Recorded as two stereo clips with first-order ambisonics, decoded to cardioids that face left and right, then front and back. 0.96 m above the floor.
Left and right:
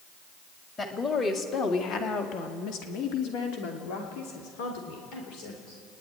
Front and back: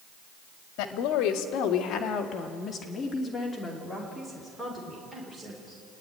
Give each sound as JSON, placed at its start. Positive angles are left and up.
{"t": 0.8, "sound": "a woman speaking", "azimuth_deg": 20, "distance_m": 2.0}